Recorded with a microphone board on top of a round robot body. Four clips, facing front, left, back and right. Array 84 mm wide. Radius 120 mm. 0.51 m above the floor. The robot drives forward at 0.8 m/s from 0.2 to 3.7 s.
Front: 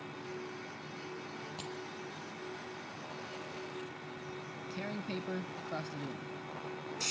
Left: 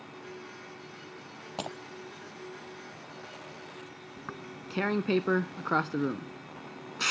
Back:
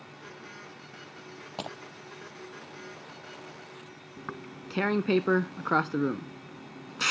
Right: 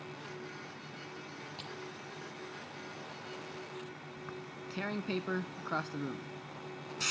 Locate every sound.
1.6 s breaking glass: 130° left
4.2 s tearing paper: 150° left